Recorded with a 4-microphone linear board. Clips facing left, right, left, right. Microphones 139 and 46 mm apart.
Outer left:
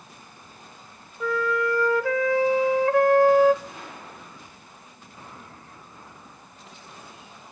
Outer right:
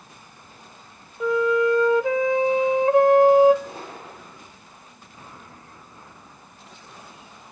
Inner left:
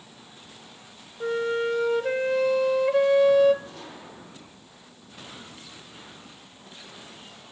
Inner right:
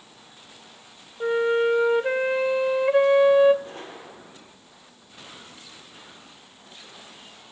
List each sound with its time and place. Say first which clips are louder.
1.2 s a flute: outer right 5 dB, inner right 4 dB; 20° right (ahead or behind), 0.8 m
3.6 s a gunshot: outer right 3 dB, inner right 3 dB; 35° right (ahead or behind), 8.5 m